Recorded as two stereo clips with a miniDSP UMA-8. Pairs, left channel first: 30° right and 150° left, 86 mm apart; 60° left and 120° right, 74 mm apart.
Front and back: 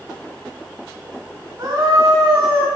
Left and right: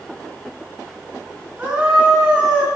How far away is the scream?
About 2.0 m.